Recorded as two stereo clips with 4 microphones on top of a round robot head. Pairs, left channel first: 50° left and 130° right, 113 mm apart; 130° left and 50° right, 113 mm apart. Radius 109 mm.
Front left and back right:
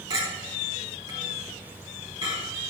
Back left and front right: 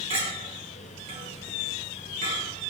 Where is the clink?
75° right, 3.5 m.